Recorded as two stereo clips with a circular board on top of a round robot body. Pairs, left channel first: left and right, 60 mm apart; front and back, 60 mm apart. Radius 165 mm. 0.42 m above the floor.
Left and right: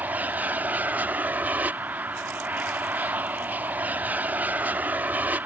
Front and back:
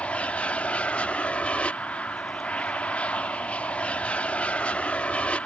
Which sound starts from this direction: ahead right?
An aircraft, at 0.0 s.